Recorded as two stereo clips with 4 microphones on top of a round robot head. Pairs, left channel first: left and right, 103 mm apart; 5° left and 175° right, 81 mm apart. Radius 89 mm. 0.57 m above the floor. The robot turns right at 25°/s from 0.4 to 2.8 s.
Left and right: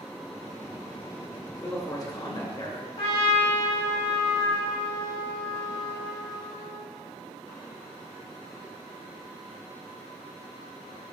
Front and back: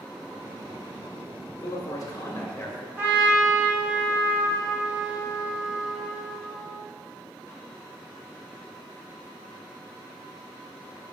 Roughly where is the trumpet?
Behind left.